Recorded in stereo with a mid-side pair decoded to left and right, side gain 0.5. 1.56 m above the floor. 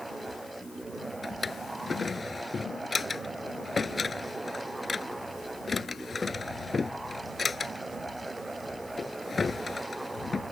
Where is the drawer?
25° left.